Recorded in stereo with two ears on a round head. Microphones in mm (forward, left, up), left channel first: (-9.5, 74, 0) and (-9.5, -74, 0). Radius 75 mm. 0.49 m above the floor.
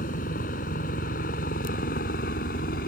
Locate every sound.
0.0 s a helicopter: 50° left (ahead or behind); by 2.9 s 55° left (ahead or behind)